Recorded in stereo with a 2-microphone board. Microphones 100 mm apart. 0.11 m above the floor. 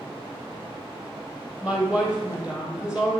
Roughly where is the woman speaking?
Centre.